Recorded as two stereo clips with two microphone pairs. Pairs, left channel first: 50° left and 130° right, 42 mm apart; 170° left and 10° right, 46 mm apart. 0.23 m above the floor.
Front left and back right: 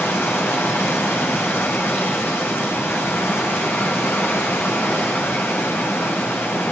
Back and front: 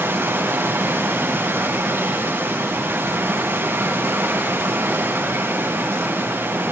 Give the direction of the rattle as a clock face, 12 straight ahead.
I don't hear a rattle.